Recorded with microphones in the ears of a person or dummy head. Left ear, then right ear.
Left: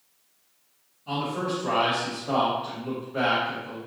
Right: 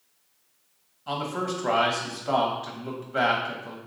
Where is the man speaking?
45° right (ahead or behind), 0.9 m.